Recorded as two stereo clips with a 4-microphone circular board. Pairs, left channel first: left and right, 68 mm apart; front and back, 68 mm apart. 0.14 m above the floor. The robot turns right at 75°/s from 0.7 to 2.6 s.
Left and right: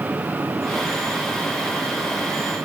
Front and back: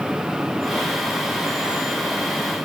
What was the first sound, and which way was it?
Only background noise.